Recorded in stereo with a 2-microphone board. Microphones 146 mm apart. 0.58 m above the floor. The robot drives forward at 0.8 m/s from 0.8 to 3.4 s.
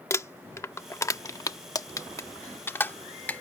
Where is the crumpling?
20° left (ahead or behind); by 3.4 s 10° left (ahead or behind).